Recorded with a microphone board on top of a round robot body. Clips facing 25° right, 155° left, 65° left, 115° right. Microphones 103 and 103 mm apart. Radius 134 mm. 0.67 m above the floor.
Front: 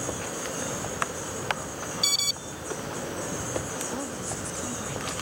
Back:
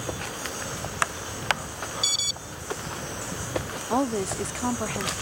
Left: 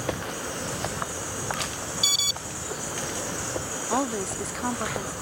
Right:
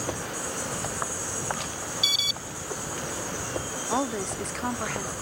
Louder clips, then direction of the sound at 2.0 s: Front 1 dB, left 1 dB; 15° left.